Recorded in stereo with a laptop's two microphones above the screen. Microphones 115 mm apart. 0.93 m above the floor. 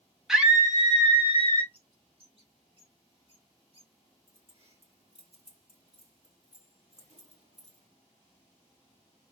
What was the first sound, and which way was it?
A scream, 5° right (ahead or behind).